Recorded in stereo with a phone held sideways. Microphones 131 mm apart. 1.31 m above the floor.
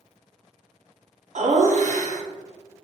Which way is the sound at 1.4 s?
65° right (ahead or behind).